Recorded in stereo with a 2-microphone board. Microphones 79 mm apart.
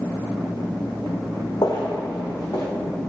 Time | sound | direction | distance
1.6 | footsteps | 65° left (ahead or behind) | 0.5 m